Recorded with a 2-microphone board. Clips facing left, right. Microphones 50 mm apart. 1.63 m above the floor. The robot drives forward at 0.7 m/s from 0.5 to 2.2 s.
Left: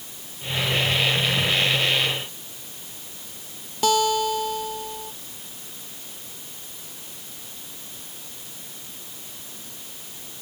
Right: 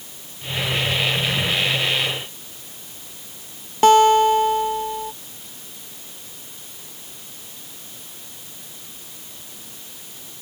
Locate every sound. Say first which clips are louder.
3.8 s a guitar: right 9 dB; 40° right (ahead or behind)